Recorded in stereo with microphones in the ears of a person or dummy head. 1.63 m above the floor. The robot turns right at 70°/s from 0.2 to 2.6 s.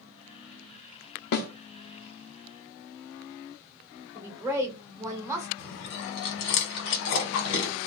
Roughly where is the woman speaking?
Centre.